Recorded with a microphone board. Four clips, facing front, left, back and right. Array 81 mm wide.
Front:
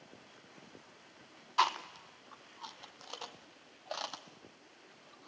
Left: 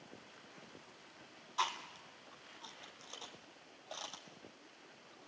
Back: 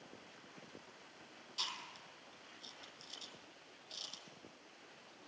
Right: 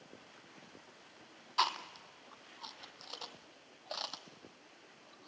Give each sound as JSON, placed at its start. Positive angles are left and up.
{"t": 1.6, "sound": "chewing", "azimuth_deg": -20, "distance_m": 0.8}